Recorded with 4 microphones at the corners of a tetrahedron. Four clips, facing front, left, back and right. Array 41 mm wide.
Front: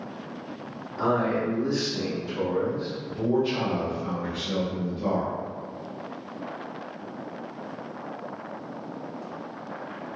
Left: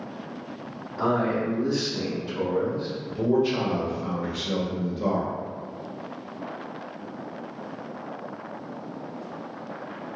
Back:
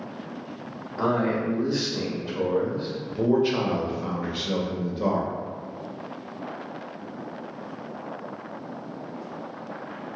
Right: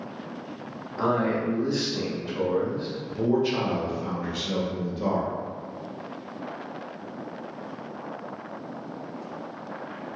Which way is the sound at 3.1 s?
Straight behind.